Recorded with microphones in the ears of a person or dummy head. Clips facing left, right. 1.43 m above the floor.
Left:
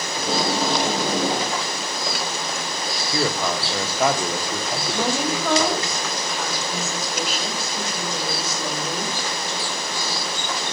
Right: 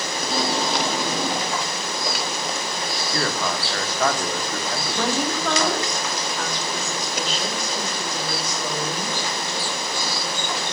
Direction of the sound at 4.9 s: 5° left (ahead or behind).